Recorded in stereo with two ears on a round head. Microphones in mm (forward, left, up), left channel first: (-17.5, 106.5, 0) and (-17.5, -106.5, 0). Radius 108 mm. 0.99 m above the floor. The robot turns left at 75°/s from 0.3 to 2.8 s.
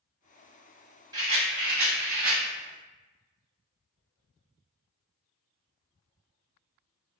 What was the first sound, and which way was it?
A rattle, 25° right.